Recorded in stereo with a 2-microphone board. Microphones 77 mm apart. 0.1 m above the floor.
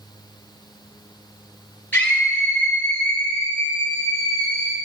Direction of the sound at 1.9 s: 25° left (ahead or behind).